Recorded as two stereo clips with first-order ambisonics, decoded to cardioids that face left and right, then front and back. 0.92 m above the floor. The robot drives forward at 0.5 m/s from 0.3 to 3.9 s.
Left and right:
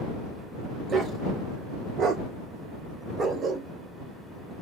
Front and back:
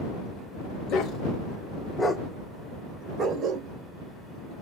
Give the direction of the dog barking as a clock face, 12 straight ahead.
1 o'clock.